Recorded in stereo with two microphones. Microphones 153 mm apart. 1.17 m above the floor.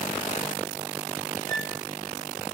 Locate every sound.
1.5 s a flute: 65° right (ahead or behind), 4 m